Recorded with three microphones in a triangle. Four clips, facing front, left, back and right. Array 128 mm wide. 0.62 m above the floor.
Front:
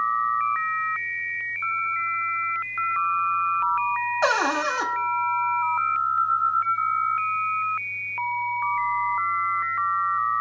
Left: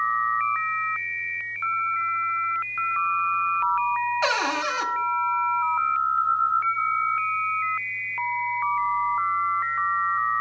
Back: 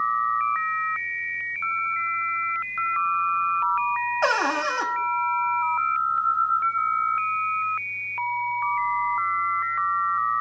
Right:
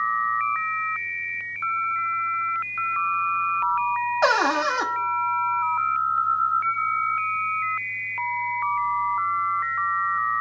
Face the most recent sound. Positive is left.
turn(degrees=-80)